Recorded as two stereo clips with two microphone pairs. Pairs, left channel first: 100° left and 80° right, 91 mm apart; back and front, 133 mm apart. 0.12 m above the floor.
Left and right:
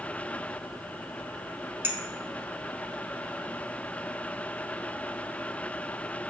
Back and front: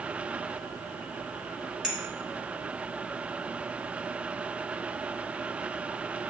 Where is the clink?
75° right, 0.7 m.